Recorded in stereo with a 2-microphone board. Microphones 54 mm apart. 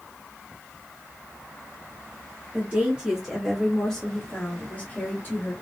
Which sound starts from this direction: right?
A woman speaking, at 2.5 s.